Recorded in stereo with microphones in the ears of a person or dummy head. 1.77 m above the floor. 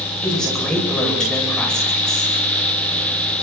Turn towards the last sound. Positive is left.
turn(degrees=5)  # may be behind; listen again after turning